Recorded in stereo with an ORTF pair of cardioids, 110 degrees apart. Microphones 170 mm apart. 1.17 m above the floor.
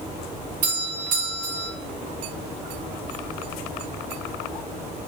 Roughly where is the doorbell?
Ahead right.